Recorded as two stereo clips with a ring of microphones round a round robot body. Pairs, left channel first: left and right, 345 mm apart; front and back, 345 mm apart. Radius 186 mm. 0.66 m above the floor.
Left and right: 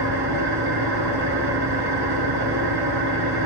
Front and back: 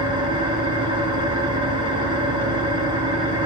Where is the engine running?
105° right, 3.5 m.